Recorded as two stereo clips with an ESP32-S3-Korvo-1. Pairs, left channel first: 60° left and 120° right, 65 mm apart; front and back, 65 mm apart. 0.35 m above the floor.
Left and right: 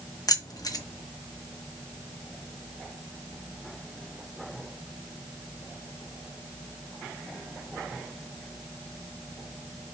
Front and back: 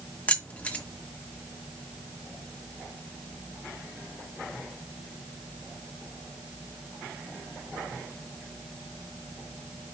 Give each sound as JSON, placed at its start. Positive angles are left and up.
{"t": 0.3, "sound": "keys jangling", "azimuth_deg": 65, "distance_m": 1.4}